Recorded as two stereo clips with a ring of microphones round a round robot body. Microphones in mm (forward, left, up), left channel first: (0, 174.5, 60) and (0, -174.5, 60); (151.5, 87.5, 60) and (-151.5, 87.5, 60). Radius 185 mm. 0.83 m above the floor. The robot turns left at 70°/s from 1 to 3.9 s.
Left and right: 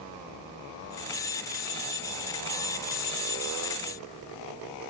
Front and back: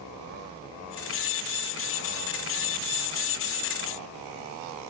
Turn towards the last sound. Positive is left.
No sound to turn to.